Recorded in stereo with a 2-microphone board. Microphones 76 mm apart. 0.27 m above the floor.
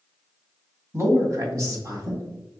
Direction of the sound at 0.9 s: 40° right (ahead or behind).